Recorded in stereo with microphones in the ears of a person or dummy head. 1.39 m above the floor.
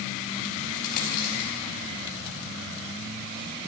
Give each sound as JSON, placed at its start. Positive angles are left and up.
{"t": 0.8, "sound": "a dropped coin", "side_deg": 55, "distance_m": 5.0}